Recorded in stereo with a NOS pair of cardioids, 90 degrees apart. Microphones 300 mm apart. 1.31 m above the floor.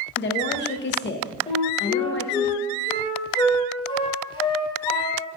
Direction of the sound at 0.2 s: 40° left.